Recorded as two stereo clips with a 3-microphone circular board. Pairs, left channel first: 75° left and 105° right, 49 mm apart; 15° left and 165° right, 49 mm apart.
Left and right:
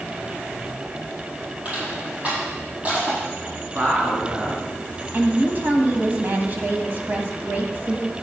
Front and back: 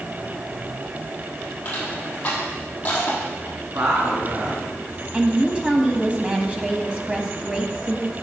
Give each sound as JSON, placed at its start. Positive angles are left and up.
{"t": 1.6, "sound": "crushing", "azimuth_deg": -45, "distance_m": 5.0}
{"t": 3.8, "sound": "a woman speaking", "azimuth_deg": -160, "distance_m": 3.0}
{"t": 5.1, "sound": "a woman speaking", "azimuth_deg": -110, "distance_m": 1.4}